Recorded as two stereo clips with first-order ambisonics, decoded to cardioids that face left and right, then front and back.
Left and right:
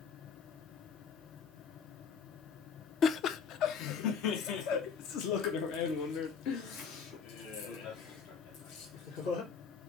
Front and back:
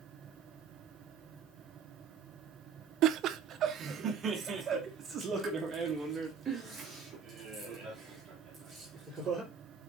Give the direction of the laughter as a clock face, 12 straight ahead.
7 o'clock.